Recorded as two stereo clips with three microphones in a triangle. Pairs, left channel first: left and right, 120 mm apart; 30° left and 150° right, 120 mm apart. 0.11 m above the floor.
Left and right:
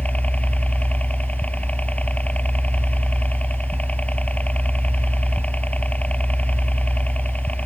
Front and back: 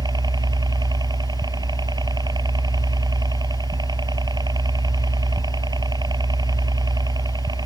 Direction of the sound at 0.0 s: 165° left.